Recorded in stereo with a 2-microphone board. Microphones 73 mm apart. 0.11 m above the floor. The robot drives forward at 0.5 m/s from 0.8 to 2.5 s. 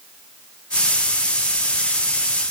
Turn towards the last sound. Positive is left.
No sound to turn to.